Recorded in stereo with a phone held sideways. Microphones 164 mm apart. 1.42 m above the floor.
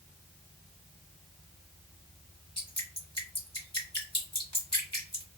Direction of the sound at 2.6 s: 30° left (ahead or behind).